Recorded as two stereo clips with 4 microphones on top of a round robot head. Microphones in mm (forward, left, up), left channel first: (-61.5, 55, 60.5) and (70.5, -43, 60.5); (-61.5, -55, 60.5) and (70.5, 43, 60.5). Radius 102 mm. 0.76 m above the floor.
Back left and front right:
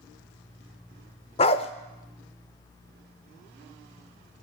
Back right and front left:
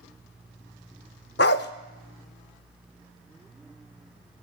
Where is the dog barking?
165° right, 0.5 m.